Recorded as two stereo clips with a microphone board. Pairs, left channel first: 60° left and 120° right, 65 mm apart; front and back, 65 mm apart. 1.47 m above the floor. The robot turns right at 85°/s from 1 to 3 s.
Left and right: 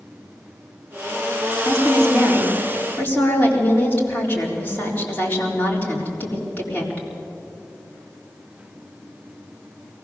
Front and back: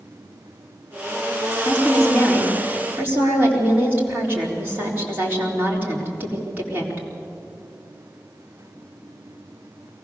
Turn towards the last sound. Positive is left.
turn(degrees=120)